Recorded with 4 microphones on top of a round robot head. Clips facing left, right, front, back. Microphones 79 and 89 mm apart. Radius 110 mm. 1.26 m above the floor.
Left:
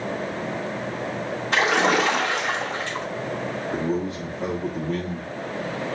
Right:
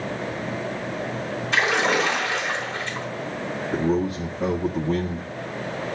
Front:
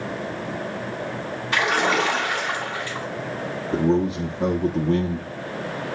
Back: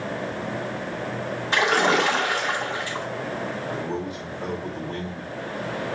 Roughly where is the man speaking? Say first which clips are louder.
Right 4 dB, front 8 dB; ahead.